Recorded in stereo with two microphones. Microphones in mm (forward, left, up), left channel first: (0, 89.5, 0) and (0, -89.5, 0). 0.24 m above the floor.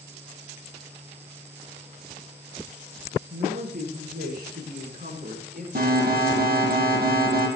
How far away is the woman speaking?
About 10 m.